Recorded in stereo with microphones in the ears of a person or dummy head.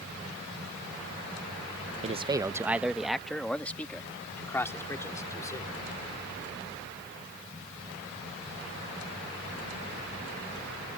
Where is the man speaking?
30° right (ahead or behind); by 5.7 s 15° left (ahead or behind).